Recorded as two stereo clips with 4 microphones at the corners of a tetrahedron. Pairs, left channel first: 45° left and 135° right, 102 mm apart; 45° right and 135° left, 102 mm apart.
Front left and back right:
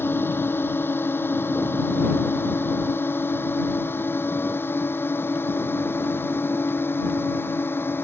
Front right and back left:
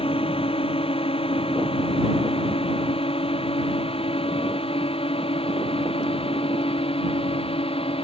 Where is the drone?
25° right.